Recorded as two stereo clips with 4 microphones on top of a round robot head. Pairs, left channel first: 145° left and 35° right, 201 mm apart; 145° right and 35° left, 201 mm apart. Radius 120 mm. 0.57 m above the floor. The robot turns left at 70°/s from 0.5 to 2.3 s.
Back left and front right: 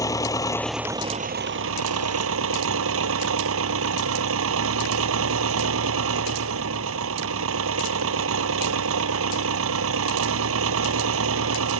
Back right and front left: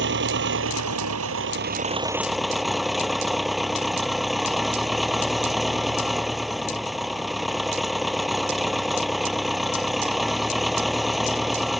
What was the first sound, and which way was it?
An engine running, 70° left.